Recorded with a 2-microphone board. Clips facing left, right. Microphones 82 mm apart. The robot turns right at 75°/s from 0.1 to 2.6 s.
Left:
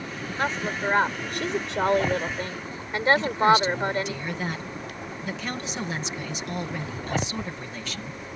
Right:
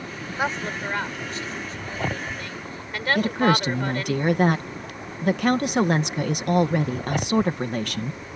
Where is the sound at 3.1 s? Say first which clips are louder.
Right 1 dB; 60° right (ahead or behind).